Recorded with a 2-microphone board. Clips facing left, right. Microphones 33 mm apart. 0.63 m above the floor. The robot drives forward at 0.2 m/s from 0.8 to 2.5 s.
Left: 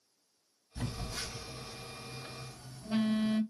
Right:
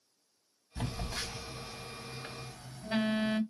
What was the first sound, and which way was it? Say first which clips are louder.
A phone buzzing: right 2 dB; 60° right (ahead or behind).